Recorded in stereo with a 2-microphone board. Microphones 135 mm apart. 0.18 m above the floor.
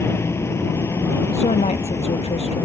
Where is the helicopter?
20° left (ahead or behind).